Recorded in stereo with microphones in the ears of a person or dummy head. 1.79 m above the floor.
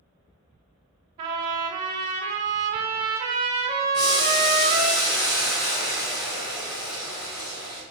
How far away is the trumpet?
About 0.8 m.